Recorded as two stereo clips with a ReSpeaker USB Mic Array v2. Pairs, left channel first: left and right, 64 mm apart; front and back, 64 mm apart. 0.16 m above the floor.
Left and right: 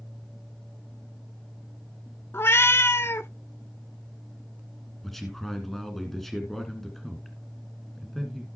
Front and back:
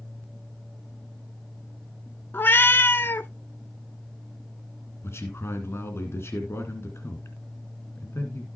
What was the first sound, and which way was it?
A cat meowing, 50° left.